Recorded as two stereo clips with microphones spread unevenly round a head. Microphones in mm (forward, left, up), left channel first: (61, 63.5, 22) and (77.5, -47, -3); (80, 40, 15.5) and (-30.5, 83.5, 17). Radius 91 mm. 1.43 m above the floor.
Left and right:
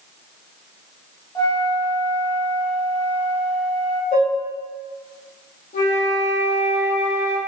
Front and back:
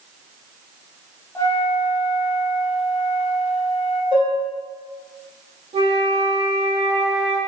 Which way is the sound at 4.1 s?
110° left.